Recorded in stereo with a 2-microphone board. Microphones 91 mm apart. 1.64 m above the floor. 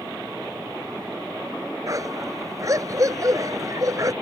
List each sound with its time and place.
1.9 s a dog barking: 40° right (ahead or behind)